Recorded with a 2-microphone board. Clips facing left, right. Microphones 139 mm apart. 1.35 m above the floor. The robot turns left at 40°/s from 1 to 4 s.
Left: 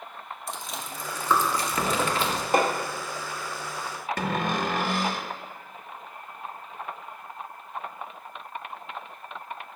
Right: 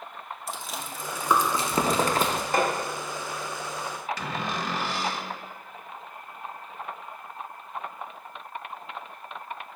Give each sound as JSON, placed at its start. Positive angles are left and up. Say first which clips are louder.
{"t": 0.5, "sound": "chewing", "louder": "even", "side_deg": 0, "distance_m": 0.8}
{"t": 2.5, "sound": "hammering", "louder": "left 2 dB", "side_deg": 20, "distance_m": 1.4}
{"t": 4.2, "sound": "a cupboard door", "louder": "left 4 dB", "side_deg": 50, "distance_m": 0.6}